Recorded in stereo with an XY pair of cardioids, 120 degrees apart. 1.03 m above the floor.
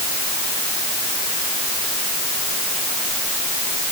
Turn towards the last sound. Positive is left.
No sound to turn to.